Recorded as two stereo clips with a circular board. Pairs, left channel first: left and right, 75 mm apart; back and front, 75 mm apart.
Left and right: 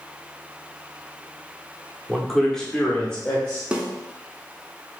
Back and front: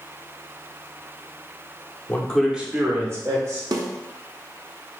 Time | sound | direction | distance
2.1 | a man speaking | 175° right | 0.7 m
3.7 | a snare drum | 15° right | 0.7 m